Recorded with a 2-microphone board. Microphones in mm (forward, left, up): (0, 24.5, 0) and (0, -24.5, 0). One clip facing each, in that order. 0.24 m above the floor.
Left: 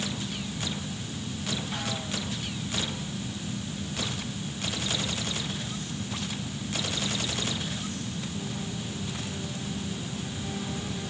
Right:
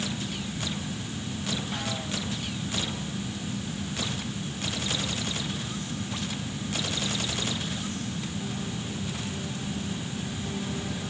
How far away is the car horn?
No car horn in this recording.